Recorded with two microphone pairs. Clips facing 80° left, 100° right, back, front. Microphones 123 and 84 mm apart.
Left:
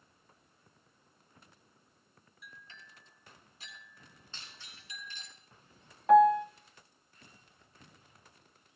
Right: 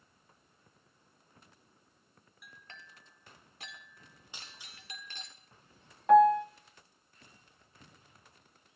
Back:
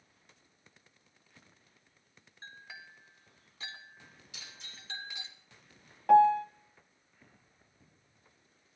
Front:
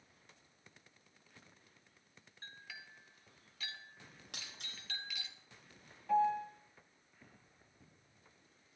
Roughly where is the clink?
Behind right.